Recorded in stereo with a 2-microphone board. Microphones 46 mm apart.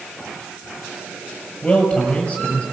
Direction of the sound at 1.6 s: 25° left (ahead or behind).